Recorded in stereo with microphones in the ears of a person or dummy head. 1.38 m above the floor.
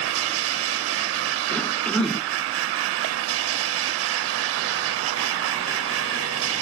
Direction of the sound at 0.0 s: 90° right.